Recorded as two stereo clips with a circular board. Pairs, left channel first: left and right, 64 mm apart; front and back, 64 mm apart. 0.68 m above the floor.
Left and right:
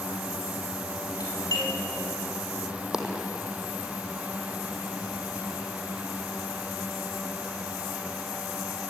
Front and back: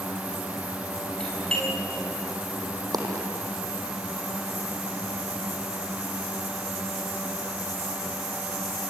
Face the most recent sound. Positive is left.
turn(degrees=-170)